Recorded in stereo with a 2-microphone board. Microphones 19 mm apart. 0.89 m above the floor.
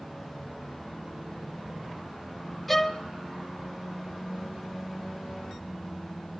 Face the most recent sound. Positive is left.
turn(degrees=10)  # may be behind; listen again after turning